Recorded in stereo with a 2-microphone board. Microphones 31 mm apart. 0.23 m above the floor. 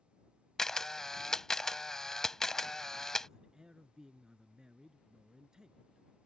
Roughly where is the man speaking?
Right.